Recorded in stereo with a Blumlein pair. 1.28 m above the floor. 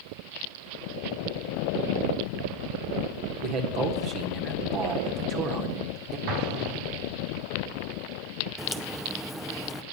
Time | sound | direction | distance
3.4 | a man speaking | 35° right | 1.2 m
6.3 | an explosion | 45° right | 1.0 m
8.6 | a crack | straight ahead | 0.6 m